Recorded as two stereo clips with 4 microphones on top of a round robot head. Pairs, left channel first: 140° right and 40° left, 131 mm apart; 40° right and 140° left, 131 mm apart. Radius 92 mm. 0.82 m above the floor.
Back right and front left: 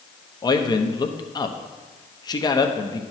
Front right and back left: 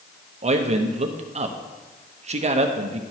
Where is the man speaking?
165° left, 0.8 m.